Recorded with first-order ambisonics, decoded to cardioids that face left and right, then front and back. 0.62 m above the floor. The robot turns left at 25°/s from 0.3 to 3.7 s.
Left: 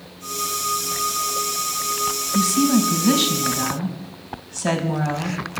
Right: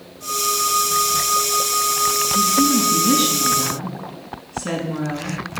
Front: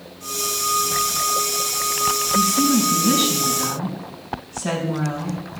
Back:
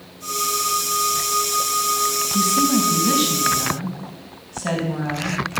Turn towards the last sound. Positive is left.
turn(degrees=95)